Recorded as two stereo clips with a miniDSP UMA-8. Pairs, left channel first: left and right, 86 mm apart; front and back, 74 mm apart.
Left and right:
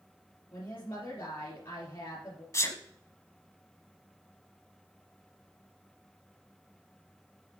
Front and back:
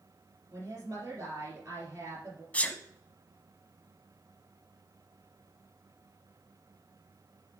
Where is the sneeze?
60° left, 1.2 m.